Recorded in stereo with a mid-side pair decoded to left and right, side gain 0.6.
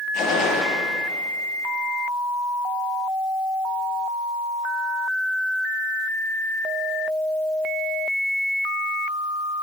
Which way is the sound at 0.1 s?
60° left.